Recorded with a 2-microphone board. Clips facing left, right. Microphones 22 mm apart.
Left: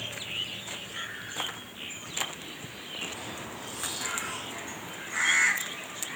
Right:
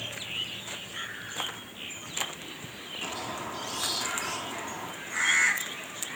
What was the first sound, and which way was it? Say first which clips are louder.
A squeak: right 6 dB; 60° right (ahead or behind).